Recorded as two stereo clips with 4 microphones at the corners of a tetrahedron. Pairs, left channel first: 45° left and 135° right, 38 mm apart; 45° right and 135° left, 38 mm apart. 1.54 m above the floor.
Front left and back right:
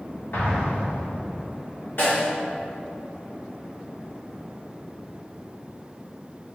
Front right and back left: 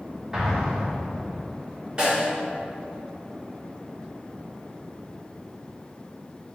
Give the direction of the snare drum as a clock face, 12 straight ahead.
10 o'clock.